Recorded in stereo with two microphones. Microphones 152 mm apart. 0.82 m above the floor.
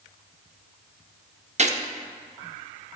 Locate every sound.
1.6 s a gunshot: 50° right (ahead or behind), 0.8 m